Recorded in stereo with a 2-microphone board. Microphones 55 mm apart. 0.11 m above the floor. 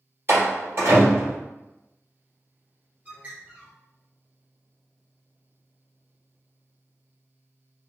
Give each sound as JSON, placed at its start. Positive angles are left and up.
{"t": 0.3, "sound": "a door slam", "side_deg": -50, "distance_m": 1.8}
{"t": 3.0, "sound": "a bird", "side_deg": -30, "distance_m": 1.2}